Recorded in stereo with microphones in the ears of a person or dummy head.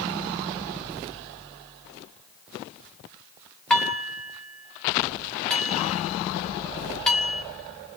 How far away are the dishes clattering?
About 3 m.